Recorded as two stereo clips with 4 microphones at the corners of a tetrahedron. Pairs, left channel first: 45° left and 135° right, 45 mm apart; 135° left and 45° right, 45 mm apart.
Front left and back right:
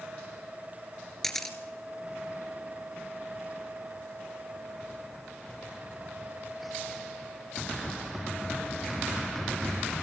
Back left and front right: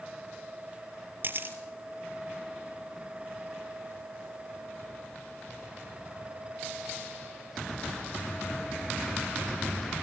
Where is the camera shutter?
35° right, 2.5 m.